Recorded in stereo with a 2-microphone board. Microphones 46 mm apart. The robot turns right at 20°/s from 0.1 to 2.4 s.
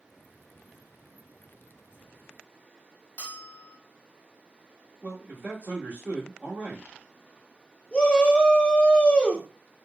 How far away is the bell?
About 0.9 m.